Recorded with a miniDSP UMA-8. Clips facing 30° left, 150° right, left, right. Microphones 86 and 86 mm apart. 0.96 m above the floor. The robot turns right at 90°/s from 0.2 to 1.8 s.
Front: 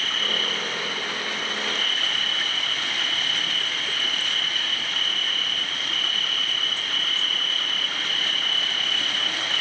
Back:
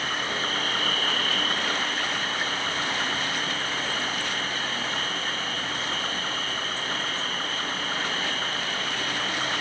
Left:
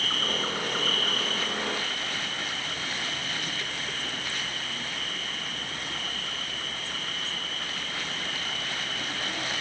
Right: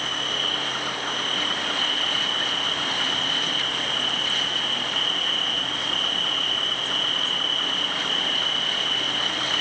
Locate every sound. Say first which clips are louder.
0.0 s an insect: back 1 dB, right 1 dB; 130° left, 1.0 m; by 9.6 s 85° right, 1.0 m